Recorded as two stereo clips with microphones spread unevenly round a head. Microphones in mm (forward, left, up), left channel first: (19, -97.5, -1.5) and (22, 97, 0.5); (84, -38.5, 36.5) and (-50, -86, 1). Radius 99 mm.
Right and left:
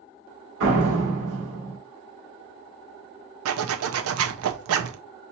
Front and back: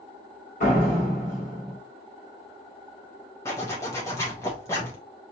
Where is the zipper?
90° left, 0.6 m.